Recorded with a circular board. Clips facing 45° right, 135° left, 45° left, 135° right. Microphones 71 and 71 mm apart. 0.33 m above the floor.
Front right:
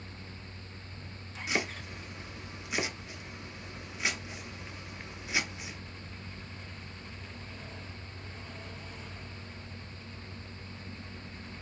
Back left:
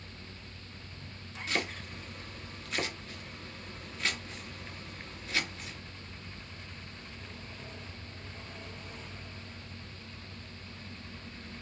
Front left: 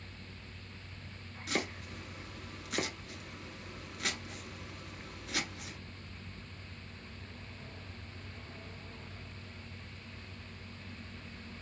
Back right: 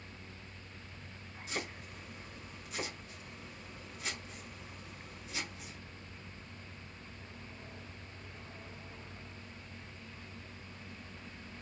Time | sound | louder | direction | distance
1.5 | chopping | front right 1 dB, front left 5 dB | 30° left | 0.7 m